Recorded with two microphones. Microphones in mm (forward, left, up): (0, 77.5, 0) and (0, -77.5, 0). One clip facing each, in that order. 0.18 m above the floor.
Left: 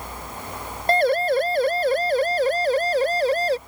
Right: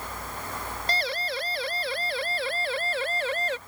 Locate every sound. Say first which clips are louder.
0.9 s a siren: left 14 dB; 50° left (ahead or behind); by 3.6 s 35° left (ahead or behind)